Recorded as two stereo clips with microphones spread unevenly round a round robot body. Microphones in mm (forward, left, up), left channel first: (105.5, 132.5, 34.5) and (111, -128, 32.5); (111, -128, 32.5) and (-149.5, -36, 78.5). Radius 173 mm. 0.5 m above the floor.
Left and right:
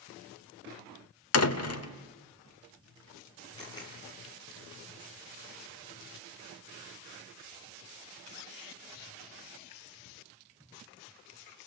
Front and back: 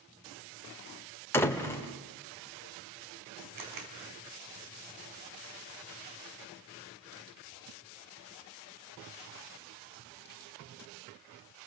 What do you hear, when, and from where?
1.3 s a door slam: 60° left, 1.0 m
3.6 s a camera shutter: 170° left, 3.5 m